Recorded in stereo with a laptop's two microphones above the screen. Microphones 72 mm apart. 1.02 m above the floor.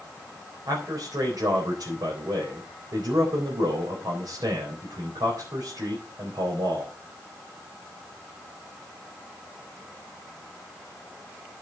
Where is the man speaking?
80° right, 4 m.